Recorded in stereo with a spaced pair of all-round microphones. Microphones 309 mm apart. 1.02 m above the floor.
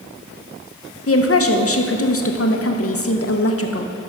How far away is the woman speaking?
About 0.7 m.